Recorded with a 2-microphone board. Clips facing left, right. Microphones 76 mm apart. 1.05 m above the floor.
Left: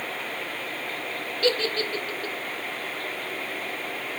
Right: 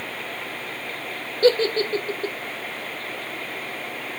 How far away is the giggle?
About 0.8 m.